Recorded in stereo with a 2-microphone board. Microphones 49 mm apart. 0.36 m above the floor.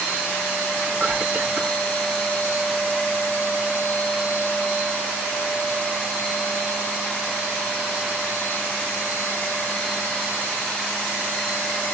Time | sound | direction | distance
0.8 | whispering | 30° right (ahead or behind) | 2.5 m